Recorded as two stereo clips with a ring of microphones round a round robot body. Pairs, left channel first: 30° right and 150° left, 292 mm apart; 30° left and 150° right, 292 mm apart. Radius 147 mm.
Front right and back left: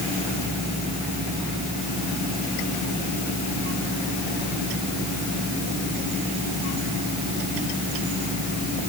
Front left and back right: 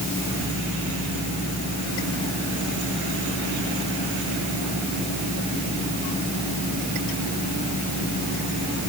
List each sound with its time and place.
Only background noise.